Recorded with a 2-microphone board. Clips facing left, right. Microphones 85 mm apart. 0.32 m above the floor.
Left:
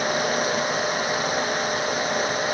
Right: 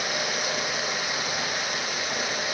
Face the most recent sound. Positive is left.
No sound to turn to.